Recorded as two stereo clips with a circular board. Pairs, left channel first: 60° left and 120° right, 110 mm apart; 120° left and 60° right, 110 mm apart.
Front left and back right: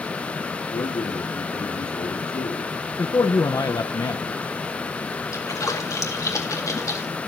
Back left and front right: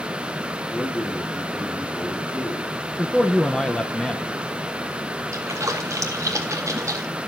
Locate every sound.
0.7 s a man speaking: 45° left, 3 m
3.0 s a man speaking: 35° left, 0.9 m
5.3 s a splash: straight ahead, 2 m